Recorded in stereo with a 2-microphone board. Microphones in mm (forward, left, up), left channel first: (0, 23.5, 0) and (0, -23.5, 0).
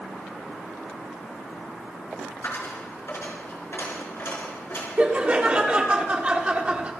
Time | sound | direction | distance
2.4 | a dropped coin | 60° left (ahead or behind) | 3.5 m
5.0 | laughter | 25° right (ahead or behind) | 1.5 m